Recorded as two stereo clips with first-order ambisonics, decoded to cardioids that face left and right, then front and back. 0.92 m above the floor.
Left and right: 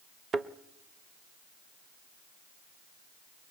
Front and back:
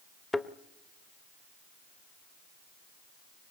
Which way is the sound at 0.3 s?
65° right.